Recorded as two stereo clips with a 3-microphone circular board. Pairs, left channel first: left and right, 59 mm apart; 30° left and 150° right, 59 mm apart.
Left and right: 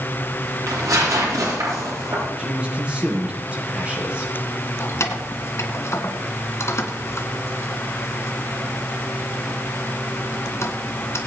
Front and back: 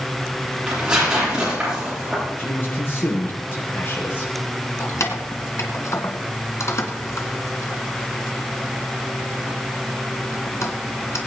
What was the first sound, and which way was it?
Tearing paper, 75° right.